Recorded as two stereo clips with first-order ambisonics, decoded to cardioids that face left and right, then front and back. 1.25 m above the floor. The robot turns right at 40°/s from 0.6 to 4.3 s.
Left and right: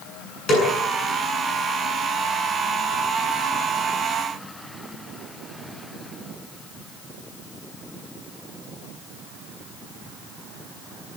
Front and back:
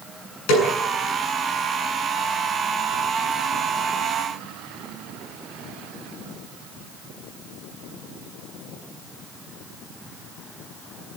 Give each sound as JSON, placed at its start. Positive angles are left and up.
{"t": 0.5, "sound": "a snare drum", "azimuth_deg": 25, "distance_m": 8.0}